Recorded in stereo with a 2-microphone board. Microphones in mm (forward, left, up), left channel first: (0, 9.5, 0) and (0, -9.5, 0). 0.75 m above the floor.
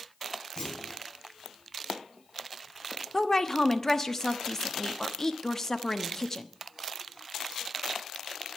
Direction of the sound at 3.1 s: 25° left (ahead or behind).